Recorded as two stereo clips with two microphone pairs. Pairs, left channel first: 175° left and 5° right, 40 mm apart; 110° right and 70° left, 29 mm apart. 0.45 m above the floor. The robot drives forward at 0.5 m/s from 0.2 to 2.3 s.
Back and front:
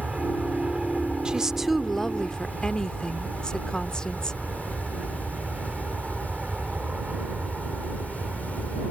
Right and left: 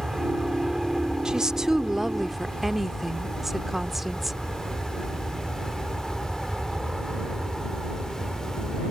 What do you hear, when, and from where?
0.0 s an aircraft: 10° left; by 8.9 s 20° right
1.2 s a woman speaking: 35° left; by 4.4 s 140° left